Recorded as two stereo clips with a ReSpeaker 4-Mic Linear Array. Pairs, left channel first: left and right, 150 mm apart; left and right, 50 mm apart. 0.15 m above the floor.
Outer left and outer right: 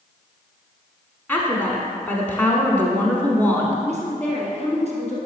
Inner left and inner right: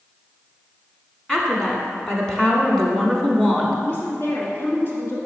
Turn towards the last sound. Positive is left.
turn(degrees=45)  # may be behind; listen again after turning